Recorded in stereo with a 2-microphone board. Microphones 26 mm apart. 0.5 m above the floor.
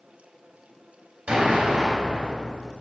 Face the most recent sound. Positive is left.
turn(degrees=-50)  # may be behind; listen again after turning